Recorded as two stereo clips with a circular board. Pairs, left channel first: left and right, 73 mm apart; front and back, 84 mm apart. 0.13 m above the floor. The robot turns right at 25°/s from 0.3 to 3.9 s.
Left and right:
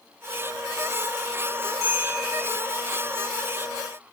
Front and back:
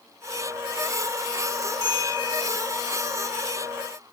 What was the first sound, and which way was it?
A bell, 40° right.